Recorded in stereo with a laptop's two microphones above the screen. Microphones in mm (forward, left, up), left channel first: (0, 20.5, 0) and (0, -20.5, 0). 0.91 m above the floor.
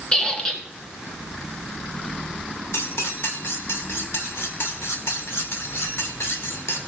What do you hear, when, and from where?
0.1 s a squeak: 20° left (ahead or behind), 1.7 m
2.7 s cutlery clinking: 80° left, 1.8 m